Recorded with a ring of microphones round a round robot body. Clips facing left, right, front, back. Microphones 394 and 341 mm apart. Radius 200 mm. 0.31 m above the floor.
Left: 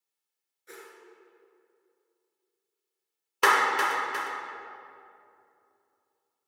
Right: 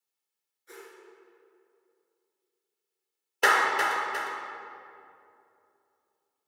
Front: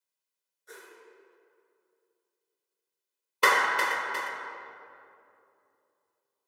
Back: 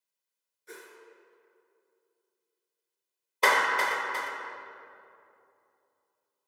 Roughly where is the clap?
Ahead left.